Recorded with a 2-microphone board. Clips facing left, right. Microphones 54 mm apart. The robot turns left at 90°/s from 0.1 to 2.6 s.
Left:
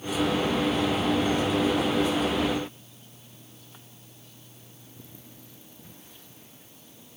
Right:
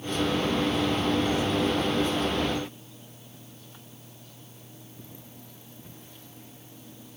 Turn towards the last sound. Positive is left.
No sound to turn to.